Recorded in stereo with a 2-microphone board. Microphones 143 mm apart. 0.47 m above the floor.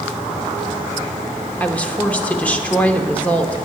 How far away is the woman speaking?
About 0.9 m.